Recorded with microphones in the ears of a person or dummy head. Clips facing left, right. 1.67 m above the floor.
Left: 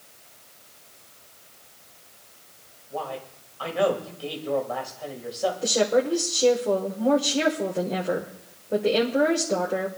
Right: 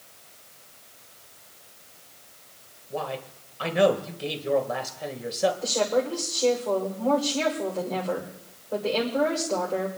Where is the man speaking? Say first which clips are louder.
Right 1 dB; 25° right (ahead or behind), 2 m.